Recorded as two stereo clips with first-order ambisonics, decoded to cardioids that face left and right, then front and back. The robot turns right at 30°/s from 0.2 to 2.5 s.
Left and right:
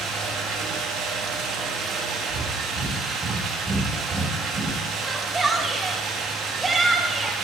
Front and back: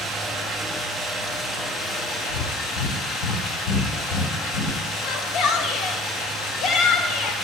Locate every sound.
0.0 s running water: 110° right, 1.1 m; by 7.4 s 40° right, 1.1 m
2.3 s breathing: 15° right, 1.1 m; by 4.8 s 10° right, 1.1 m
5.0 s a shout: 10° right, 0.7 m